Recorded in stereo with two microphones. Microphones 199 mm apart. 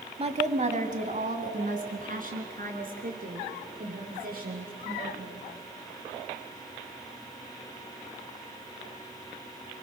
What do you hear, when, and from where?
0.2 s a woman speaking: 30° right (ahead or behind), 1.3 m; by 5.5 s 45° right (ahead or behind), 6 m